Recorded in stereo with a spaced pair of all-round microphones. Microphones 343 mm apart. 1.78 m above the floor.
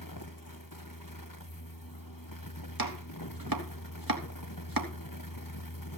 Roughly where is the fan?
Left.